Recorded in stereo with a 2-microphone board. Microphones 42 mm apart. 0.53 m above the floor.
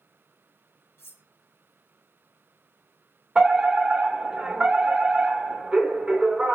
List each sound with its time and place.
1.0 s cutlery clinking: 70° left (ahead or behind), 0.9 m
3.4 s a fire alarm: 20° right (ahead or behind), 1.7 m